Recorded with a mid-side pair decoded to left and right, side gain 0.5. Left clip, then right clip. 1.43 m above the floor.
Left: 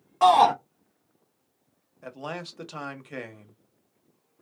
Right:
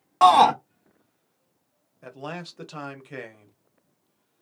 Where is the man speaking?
5° left, 1.2 m.